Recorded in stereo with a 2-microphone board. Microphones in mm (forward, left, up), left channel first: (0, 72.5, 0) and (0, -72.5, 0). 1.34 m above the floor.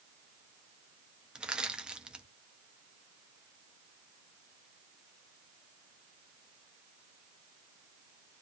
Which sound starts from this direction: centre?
Crushing, at 1.4 s.